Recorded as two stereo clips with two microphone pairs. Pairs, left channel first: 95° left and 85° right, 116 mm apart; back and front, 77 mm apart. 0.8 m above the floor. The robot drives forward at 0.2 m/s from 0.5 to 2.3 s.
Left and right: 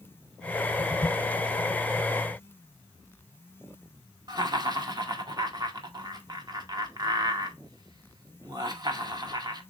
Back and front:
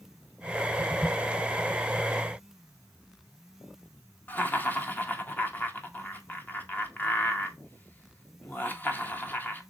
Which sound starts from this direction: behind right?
Laughter, at 4.3 s.